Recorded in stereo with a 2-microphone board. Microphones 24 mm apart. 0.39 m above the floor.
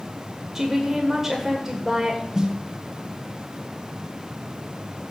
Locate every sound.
0.6 s a woman speaking: 15° right (ahead or behind), 1.4 m
2.3 s a snare drum: 25° right (ahead or behind), 1.4 m